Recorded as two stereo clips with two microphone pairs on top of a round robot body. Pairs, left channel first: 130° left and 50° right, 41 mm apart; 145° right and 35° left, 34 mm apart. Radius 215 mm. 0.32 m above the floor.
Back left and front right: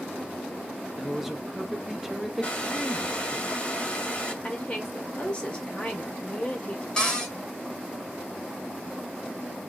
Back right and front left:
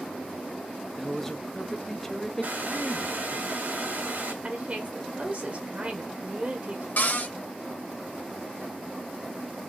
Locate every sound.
1.0 s a man speaking: 105° right, 0.8 m
2.4 s a hair dryer: 60° left, 1.7 m
4.4 s a woman speaking: 65° left, 1.4 m
7.0 s a cupboard door: 155° right, 1.9 m